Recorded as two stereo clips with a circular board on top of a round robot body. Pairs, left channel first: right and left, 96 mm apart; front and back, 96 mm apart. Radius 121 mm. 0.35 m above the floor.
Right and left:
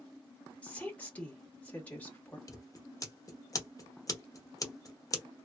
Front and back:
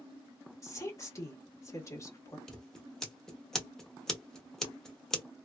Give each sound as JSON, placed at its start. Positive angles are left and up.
{"t": 0.6, "sound": "a woman speaking", "azimuth_deg": -25, "distance_m": 1.5}
{"t": 2.5, "sound": "scissors", "azimuth_deg": -80, "distance_m": 1.1}